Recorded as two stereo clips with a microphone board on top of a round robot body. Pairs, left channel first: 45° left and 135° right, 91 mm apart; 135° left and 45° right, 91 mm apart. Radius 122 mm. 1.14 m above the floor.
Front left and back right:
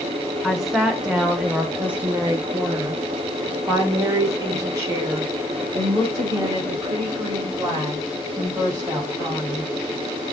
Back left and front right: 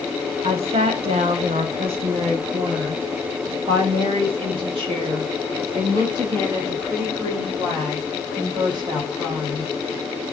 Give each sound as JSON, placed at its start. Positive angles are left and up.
{"t": 0.4, "sound": "a woman speaking", "azimuth_deg": -45, "distance_m": 1.8}